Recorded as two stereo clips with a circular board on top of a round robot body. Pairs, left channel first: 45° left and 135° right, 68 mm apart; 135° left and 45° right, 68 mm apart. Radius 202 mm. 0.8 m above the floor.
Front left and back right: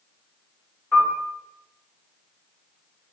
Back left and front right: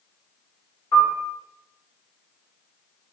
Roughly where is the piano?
Behind left.